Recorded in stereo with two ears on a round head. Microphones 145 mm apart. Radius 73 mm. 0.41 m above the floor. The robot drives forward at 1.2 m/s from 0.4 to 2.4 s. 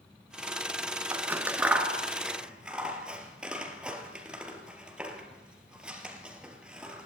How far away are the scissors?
About 0.9 m.